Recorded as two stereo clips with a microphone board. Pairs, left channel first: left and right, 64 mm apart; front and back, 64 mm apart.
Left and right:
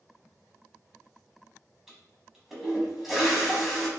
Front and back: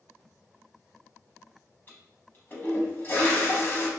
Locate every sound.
1.9 s a toilet flushing: 10° right, 0.8 m